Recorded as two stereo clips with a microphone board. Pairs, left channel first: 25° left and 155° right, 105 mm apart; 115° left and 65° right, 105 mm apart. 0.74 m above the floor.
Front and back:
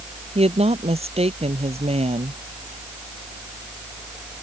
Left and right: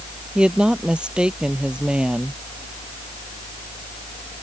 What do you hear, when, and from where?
0.3 s a woman speaking: 150° right